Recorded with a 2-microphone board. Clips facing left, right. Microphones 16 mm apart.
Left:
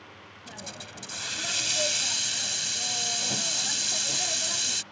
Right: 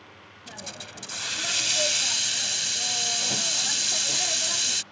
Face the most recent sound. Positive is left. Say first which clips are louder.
# right 2 dB
turn(degrees=-15)  # may be behind; listen again after turning